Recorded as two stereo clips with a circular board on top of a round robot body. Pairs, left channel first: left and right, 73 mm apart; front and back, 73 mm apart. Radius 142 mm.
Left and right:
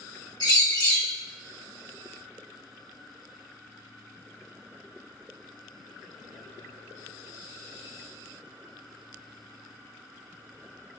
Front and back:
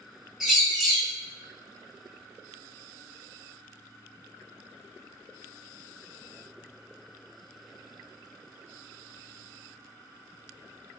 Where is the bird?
95° left, 2.0 m.